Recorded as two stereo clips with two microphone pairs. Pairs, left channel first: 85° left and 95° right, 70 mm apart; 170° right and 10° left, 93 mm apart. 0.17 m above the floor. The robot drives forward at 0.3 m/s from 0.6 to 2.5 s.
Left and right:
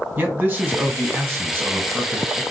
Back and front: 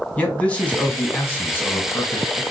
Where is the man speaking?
110° right, 1.6 m; by 2.4 s 140° right, 1.8 m.